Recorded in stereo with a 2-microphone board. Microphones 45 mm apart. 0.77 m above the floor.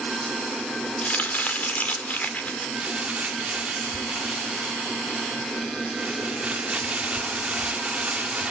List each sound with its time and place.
1.0 s chopping: 35° left (ahead or behind), 2 m
2.8 s crumpling: 25° right (ahead or behind), 1.8 m